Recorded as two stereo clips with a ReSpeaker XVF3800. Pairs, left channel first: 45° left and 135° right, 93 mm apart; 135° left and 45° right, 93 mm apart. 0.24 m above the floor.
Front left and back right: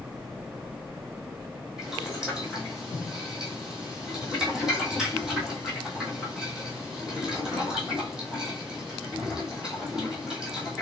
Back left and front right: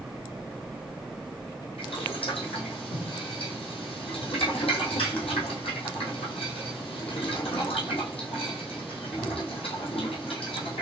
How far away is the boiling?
About 2.0 m.